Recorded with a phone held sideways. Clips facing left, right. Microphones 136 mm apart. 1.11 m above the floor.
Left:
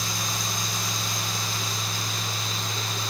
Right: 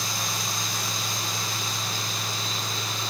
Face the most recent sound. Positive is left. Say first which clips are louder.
# even
turn(degrees=-25)  # may be behind; listen again after turning